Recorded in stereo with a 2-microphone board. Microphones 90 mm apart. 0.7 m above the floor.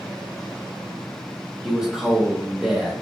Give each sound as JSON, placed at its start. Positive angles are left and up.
{"t": 1.6, "sound": "a man speaking", "side_deg": -10, "distance_m": 1.0}